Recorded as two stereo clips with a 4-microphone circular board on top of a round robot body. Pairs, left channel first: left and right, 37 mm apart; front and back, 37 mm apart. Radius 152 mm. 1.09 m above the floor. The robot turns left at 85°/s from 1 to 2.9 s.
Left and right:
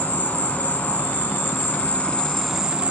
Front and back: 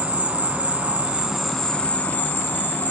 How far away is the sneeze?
I don't hear a sneeze.